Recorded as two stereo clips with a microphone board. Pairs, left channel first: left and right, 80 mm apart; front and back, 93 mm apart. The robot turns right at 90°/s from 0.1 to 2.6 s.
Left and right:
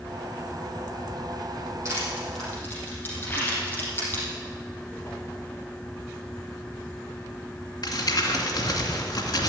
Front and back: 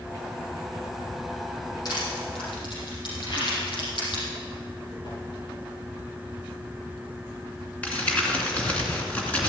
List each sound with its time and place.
1.9 s crushing: 40° right, 6 m; by 4.2 s 25° left, 6 m
3.2 s a rattle: 30° left, 4.5 m
5.0 s a whoosh: 30° left, 5.5 m
7.8 s crumpling: 75° left, 2.5 m